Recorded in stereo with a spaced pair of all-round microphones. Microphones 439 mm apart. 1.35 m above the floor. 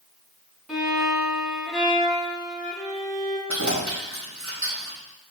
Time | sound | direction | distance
0.7 | a violin | centre (ahead or behind) | 2.0 m
3.5 | keys jangling | 40° right (ahead or behind) | 2.5 m